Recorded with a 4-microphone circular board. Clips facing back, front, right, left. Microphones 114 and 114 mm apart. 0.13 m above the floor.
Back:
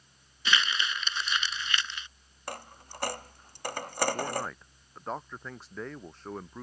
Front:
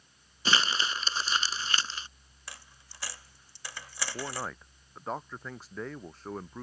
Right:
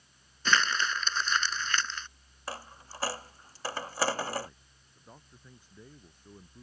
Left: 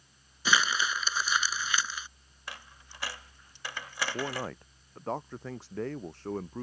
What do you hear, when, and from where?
0.5 s crumpling: 15° left
2.5 s a dropped coin: 140° right
4.1 s a man speaking: 90° left